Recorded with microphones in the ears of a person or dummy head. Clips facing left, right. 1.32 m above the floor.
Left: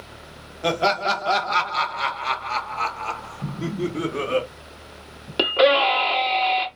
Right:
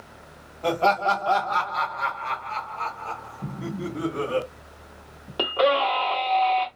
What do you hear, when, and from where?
0.6 s laughter: 25° left (ahead or behind), 1.3 m; by 4.4 s 50° left (ahead or behind), 1.2 m
3.4 s an explosion: 20° left (ahead or behind), 1.5 m
5.4 s a scream: 40° left (ahead or behind), 1.4 m